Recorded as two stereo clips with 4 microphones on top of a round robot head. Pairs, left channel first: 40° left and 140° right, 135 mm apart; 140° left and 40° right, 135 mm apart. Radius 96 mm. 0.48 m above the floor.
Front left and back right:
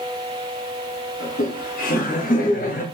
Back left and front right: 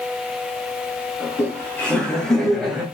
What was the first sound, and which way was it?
Laughter, 65° left.